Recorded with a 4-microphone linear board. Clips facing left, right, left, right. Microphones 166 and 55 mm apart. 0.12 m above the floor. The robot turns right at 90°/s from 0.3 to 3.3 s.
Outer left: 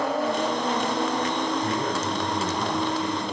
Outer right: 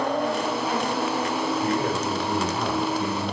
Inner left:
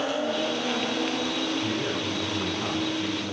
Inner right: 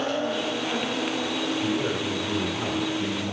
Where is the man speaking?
Straight behind, 6.5 m; by 3.3 s 30° right, 6.5 m.